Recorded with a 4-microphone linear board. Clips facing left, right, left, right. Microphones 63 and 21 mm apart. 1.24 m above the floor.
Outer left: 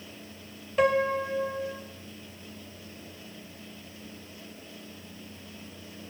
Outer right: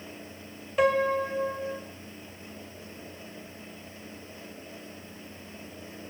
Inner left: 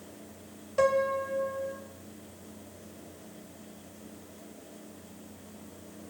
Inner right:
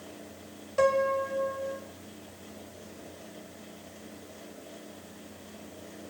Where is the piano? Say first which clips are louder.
Even, inner right 1 dB; centre (ahead or behind), 1.8 m.